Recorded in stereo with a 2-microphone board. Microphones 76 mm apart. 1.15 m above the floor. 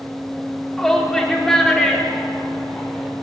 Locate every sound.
0.8 s a shout: 5° left (ahead or behind), 3.5 m